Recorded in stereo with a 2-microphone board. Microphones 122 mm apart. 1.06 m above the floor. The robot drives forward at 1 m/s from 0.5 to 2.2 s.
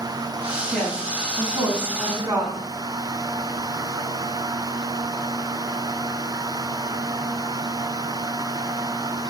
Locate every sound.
0.7 s a woman speaking: 15° right (ahead or behind), 8.5 m; by 2.6 s 20° right (ahead or behind), 7 m